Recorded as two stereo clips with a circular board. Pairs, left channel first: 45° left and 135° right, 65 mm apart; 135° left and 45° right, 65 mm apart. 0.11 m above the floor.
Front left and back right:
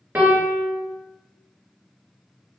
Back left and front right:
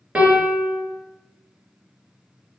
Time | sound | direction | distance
0.1 | a piano | 100° right | 0.9 m